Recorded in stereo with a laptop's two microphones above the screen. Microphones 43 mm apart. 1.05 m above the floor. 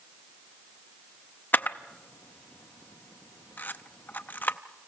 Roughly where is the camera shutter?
Left.